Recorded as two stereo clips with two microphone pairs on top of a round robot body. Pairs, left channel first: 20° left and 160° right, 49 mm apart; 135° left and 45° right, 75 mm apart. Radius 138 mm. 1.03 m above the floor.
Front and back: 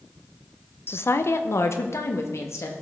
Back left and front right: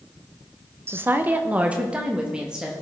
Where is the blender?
No blender in this recording.